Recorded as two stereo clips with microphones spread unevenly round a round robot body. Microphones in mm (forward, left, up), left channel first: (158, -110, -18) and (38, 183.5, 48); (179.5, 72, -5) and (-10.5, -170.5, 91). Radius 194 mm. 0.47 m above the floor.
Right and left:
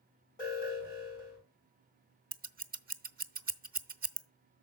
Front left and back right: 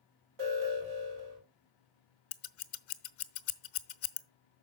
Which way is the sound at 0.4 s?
145° right.